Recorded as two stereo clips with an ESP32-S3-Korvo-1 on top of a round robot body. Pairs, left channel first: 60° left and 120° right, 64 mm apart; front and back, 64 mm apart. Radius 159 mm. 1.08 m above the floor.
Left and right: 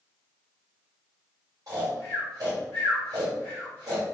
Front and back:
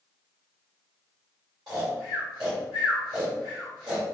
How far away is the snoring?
About 1.1 m.